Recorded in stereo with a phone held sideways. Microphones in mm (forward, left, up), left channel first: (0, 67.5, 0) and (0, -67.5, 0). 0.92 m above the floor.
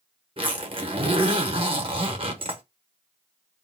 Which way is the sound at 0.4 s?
45° right (ahead or behind).